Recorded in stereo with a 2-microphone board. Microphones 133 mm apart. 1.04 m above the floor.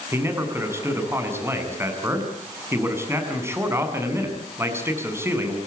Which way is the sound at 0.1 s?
20° right (ahead or behind).